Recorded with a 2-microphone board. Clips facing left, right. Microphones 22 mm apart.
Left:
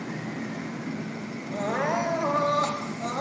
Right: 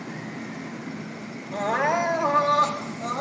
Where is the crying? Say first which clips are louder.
Right 4 dB; 20° right (ahead or behind), 4.5 m.